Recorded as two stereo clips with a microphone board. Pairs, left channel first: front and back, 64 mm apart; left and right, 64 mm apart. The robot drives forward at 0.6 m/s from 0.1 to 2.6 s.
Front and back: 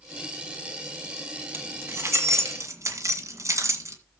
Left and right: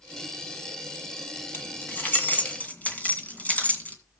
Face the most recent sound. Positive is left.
turn(degrees=150)